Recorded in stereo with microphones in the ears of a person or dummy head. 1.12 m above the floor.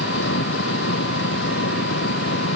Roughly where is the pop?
No pop in this recording.